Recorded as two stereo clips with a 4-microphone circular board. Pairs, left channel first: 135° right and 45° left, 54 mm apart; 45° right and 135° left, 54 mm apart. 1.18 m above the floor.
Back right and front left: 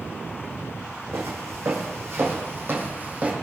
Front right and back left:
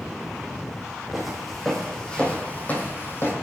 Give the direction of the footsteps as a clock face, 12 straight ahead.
10 o'clock.